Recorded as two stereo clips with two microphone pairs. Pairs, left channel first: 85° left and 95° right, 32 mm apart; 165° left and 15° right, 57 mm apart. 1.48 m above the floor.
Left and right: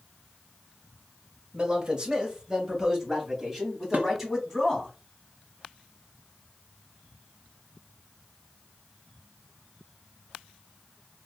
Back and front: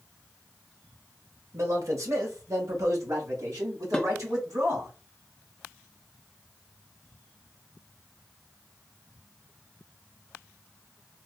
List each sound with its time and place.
1.5 s a man speaking: 40° right, 1.2 m; by 4.9 s 10° right, 3 m
3.9 s dishes clattering: 120° right, 0.9 m